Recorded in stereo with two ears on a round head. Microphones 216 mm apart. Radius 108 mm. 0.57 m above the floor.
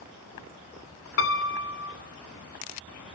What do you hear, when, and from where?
1.2 s a piano: 55° left (ahead or behind), 1.8 m